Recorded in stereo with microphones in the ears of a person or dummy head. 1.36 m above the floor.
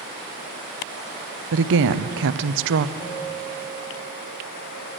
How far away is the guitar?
About 6 m.